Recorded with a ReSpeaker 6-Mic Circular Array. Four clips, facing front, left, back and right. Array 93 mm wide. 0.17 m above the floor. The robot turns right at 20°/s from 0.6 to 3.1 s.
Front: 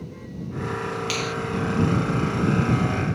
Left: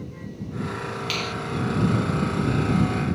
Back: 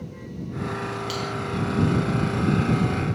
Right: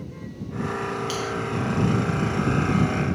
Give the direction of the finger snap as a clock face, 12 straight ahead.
10 o'clock.